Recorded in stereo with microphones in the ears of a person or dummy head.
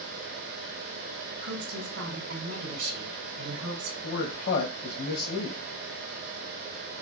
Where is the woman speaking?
70° right (ahead or behind), 1.7 m.